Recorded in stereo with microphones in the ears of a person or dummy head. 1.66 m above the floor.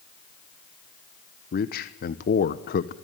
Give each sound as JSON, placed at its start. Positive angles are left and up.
{"t": 1.5, "sound": "a man speaking", "side_deg": 55, "distance_m": 1.0}